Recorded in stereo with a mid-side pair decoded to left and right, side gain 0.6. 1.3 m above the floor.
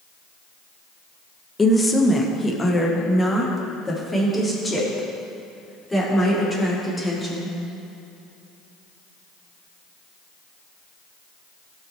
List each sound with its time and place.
1.6 s a woman speaking: 20° left, 1.1 m; by 7.5 s 10° left, 4.5 m